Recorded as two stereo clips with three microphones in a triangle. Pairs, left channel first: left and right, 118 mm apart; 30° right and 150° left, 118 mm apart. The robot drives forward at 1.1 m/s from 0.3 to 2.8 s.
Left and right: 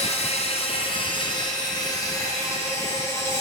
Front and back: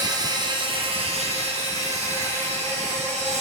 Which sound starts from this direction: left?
An insect, at 0.0 s.